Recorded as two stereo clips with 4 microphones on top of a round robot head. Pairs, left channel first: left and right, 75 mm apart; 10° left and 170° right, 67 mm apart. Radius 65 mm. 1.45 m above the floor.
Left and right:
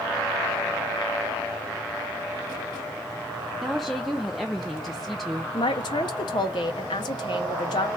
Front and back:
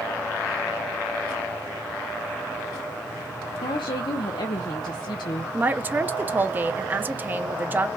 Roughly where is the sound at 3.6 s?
Ahead.